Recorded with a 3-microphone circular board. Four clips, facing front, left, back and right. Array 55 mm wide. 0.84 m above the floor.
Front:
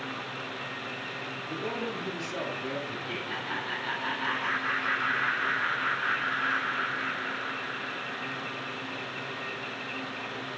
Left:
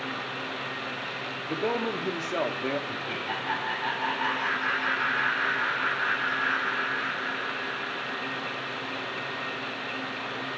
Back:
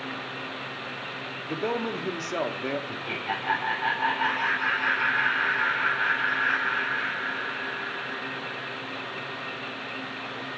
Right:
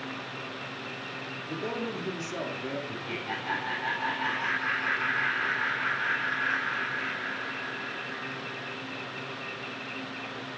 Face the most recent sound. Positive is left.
turn(degrees=165)